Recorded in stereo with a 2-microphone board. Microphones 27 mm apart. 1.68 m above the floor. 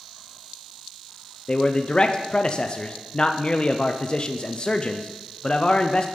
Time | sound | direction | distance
1.5 | a man speaking | 35° left (ahead or behind) | 0.7 m